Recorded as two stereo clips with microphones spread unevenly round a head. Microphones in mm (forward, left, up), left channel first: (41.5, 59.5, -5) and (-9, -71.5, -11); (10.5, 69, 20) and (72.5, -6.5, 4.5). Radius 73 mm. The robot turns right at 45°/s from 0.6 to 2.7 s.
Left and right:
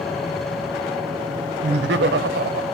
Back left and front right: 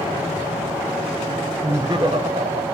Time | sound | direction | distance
1.6 | laughter | 130° right | 0.5 m